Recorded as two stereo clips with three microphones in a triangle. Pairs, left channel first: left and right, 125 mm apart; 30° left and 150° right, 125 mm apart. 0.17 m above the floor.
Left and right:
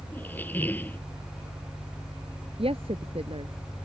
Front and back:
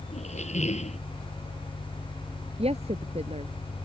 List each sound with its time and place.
0.1 s a squeak: 15° left
2.6 s a woman speaking: 125° right